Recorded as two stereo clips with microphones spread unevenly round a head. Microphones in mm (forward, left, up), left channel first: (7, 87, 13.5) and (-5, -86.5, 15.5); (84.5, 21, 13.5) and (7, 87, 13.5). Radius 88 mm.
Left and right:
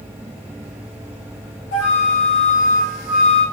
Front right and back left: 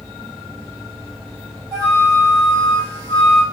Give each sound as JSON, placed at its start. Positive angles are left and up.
{"t": 1.7, "sound": "a flute", "azimuth_deg": 105, "distance_m": 1.4}